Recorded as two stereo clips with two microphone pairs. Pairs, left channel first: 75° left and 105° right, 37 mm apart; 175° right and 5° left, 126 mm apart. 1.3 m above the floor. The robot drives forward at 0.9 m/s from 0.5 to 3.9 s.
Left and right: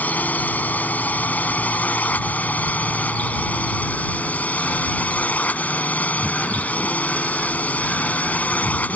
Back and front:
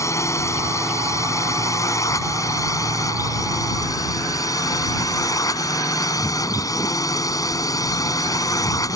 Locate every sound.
0.0 s a drone: 115° left; by 9.0 s 120° left